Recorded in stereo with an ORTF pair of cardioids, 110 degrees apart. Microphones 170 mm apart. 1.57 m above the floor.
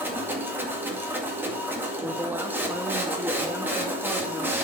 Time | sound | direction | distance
0.0 | a machine running | 10° right | 1.9 m
2.0 | a woman speaking | 10° right | 0.9 m